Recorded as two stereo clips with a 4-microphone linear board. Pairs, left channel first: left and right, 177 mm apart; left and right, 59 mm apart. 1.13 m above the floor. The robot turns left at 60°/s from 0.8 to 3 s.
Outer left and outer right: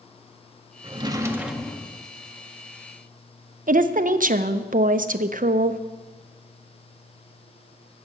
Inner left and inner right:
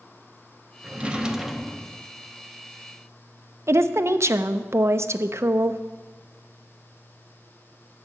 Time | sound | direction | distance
0.8 | a drawer | 135° right | 0.6 m
3.7 | a woman speaking | 50° right (ahead or behind) | 0.5 m